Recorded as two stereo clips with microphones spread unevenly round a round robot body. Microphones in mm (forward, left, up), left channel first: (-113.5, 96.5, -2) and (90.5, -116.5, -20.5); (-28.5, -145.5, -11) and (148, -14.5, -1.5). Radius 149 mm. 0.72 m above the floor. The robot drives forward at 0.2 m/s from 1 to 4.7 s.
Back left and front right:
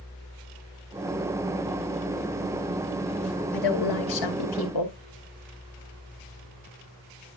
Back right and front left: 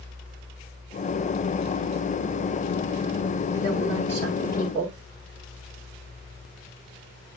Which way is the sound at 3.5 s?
130° left.